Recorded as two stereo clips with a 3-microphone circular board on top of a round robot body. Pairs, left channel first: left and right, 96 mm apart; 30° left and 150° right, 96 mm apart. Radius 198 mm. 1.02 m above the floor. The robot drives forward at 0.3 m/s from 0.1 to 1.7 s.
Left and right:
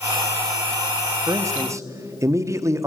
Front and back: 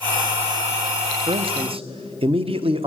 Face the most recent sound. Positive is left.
turn(degrees=-150)